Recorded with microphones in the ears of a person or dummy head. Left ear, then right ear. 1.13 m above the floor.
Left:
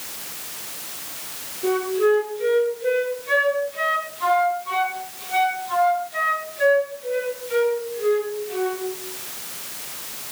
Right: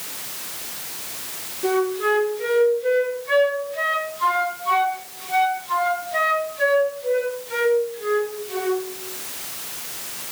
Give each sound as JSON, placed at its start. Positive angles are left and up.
{"t": 1.6, "sound": "a flute", "side_deg": -10, "distance_m": 4.0}